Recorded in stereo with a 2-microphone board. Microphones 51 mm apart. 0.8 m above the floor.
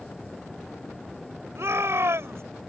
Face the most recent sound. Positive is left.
turn(degrees=-65)  # may be behind; listen again after turning